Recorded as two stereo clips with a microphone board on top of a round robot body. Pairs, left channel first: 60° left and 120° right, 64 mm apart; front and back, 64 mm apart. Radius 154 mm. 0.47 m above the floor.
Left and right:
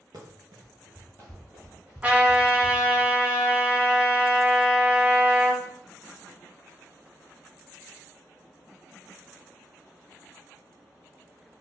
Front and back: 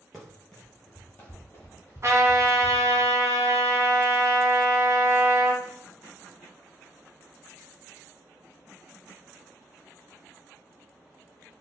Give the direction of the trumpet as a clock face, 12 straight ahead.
6 o'clock.